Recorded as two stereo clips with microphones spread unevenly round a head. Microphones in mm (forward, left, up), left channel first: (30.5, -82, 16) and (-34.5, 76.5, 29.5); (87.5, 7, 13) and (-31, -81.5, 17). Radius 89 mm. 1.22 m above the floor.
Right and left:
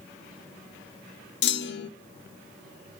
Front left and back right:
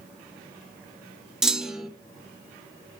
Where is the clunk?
55° right, 1.0 m.